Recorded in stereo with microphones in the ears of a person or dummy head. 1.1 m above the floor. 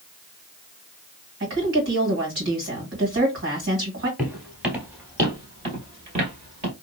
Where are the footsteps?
5° right (ahead or behind), 1.4 m; by 6.7 s 35° right (ahead or behind), 1.3 m.